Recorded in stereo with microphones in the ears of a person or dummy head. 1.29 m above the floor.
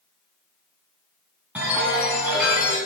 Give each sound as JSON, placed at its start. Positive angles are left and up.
{"t": 1.6, "sound": "a chime", "side_deg": -10, "distance_m": 1.7}